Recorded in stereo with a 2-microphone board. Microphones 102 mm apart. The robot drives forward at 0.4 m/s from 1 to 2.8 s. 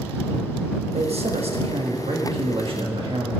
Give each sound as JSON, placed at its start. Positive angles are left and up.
{"t": 0.9, "sound": "a man speaking", "side_deg": -70, "distance_m": 1.2}